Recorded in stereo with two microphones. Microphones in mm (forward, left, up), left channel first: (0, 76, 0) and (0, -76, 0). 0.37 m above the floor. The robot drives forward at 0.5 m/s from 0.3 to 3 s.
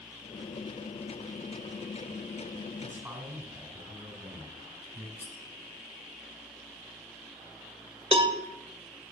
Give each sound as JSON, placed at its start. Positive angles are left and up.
{"t": 2.8, "sound": "a man speaking", "side_deg": -10, "distance_m": 3.5}
{"t": 5.2, "sound": "cutlery clinking", "side_deg": 50, "distance_m": 1.8}
{"t": 8.1, "sound": "a cowbell", "side_deg": -35, "distance_m": 0.6}